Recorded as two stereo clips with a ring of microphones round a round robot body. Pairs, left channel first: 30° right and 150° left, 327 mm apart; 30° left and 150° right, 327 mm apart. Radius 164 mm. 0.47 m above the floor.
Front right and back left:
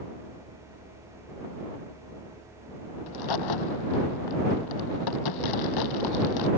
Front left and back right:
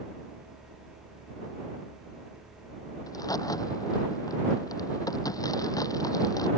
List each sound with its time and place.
3.1 s a crack: 50° right